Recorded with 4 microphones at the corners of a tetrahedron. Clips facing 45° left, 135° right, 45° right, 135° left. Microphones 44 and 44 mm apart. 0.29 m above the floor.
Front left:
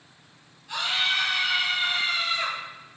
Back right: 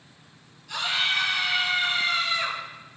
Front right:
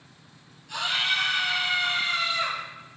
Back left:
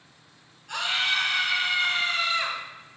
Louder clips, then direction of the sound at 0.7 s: Even, even; 115° left.